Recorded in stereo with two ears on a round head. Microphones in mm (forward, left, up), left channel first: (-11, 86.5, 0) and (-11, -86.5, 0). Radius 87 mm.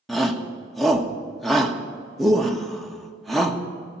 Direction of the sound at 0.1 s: Centre (ahead or behind).